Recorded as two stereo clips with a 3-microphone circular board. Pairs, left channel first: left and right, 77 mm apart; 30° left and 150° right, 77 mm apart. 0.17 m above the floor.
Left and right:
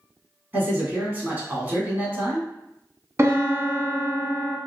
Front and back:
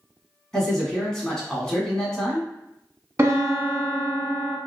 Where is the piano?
115° right, 0.6 m.